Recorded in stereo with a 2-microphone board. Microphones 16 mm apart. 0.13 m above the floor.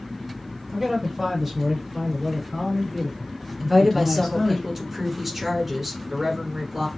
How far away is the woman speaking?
About 1.2 m.